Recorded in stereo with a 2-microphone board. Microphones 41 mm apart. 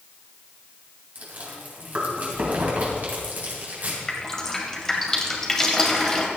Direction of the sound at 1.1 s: 45° right (ahead or behind).